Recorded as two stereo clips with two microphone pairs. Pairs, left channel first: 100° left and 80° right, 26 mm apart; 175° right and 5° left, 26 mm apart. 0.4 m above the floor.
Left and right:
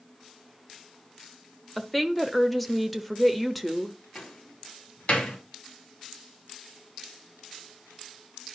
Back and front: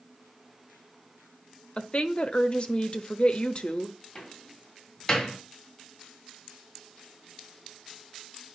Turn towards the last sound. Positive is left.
turn(degrees=115)